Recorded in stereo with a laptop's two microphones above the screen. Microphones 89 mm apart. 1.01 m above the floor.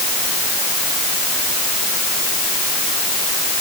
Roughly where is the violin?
No violin in this recording.